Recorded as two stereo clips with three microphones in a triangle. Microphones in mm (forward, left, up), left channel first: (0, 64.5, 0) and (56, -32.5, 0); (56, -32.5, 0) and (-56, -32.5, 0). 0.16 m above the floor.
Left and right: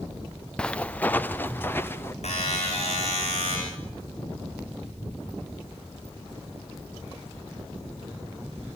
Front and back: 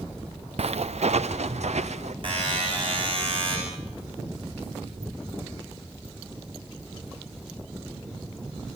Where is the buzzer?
140° left, 8.5 m.